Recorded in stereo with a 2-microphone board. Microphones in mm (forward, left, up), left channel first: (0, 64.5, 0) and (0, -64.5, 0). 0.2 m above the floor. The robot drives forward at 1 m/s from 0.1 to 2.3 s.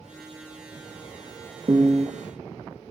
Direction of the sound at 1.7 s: 35° right (ahead or behind).